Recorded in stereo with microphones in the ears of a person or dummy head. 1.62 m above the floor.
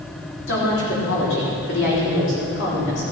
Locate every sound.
0.5 s a woman speaking: 60° left (ahead or behind), 4 m